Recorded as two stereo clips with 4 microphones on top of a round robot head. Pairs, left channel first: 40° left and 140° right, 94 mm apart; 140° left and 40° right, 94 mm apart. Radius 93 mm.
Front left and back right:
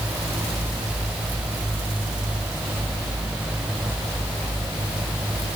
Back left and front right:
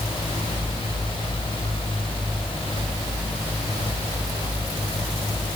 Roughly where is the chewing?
I don't hear chewing.